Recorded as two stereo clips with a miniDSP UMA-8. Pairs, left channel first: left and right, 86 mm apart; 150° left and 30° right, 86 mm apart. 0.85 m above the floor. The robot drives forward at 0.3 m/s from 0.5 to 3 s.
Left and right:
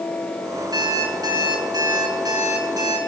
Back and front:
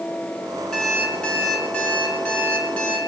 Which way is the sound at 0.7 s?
130° right.